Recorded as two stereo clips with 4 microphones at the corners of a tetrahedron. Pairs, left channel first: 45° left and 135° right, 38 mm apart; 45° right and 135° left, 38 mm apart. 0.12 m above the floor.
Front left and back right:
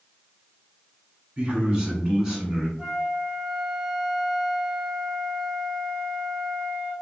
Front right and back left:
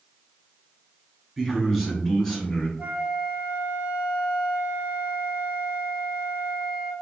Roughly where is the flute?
Behind left.